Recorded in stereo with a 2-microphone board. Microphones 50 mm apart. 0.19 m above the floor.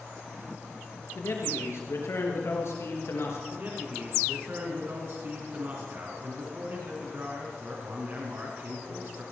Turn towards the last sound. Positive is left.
turn(degrees=-45)  # may be behind; listen again after turning